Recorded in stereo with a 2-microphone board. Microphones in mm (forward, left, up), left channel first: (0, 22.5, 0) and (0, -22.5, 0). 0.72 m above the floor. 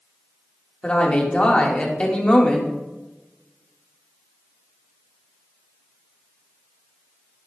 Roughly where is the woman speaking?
Left.